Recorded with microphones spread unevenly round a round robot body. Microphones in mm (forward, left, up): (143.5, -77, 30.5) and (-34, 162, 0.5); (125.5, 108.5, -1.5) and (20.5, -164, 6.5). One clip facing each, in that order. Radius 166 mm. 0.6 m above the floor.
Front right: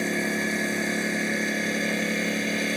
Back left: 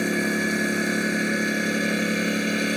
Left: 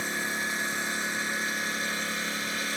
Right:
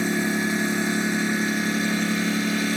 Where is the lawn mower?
150° right.